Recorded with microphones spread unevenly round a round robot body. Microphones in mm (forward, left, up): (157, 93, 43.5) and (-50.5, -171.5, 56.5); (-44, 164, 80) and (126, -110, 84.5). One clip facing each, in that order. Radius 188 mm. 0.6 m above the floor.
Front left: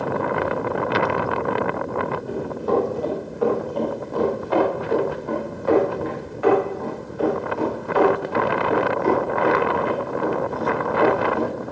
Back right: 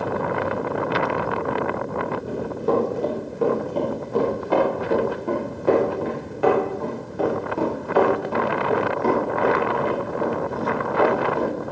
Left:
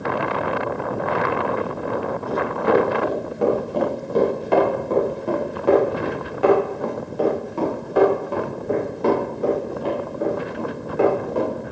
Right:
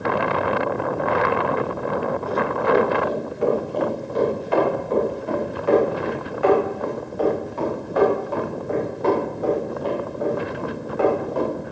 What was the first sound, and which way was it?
Running footsteps, 165° left.